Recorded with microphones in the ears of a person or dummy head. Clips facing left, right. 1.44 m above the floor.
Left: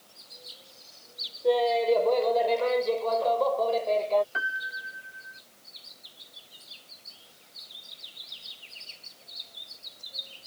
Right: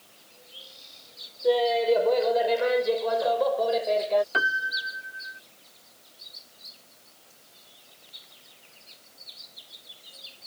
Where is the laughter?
5° right (ahead or behind); by 4.2 s 15° right (ahead or behind).